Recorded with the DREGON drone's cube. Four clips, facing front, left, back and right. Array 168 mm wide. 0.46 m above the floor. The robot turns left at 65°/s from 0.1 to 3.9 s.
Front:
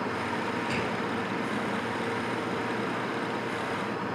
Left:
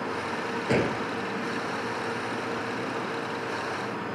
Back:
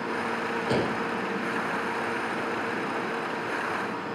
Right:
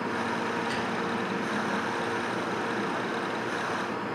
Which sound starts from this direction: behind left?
A gunshot, at 0.7 s.